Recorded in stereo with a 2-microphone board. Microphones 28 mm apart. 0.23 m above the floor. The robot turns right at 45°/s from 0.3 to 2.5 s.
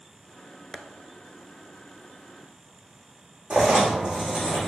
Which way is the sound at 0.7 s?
15° left (ahead or behind).